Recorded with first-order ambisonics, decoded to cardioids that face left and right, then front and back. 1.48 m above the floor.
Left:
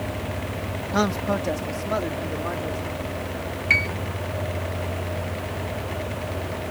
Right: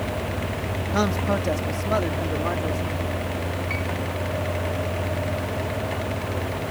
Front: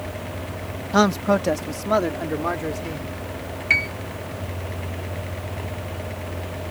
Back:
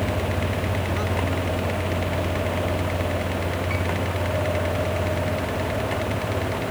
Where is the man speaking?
5° left; by 3.1 s 15° right.